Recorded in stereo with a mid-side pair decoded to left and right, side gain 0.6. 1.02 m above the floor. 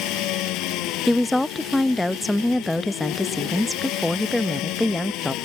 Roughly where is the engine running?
Left.